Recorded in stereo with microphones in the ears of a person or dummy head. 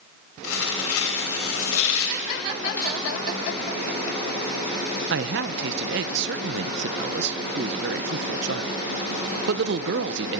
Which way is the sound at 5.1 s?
55° right (ahead or behind).